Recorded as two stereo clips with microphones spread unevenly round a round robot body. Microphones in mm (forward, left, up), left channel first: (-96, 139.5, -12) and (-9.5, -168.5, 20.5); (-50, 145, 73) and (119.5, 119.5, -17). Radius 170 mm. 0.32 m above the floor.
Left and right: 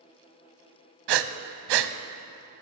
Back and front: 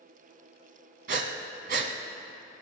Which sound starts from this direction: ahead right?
Breathing, at 1.1 s.